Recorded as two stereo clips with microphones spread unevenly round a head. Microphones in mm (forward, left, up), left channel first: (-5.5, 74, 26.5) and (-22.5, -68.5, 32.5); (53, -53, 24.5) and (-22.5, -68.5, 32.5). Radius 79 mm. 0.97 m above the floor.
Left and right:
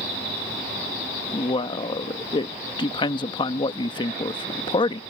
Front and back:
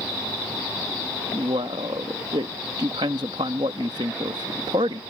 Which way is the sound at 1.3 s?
140° left.